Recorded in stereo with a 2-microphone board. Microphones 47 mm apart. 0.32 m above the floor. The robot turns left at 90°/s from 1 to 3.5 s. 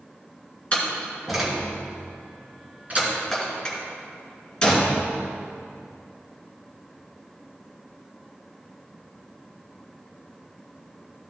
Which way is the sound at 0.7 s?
25° left (ahead or behind).